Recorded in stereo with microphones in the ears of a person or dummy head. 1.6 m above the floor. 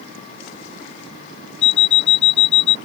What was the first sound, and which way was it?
An alarm clock, 25° left (ahead or behind).